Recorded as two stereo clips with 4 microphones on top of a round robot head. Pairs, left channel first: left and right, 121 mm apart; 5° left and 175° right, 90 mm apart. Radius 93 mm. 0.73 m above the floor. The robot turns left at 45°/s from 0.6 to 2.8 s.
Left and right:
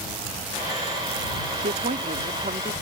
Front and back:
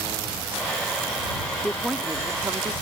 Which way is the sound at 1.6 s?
80° right.